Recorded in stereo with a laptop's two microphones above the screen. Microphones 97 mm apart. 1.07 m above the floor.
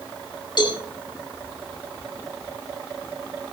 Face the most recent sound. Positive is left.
turn(degrees=50)  # may be behind; listen again after turning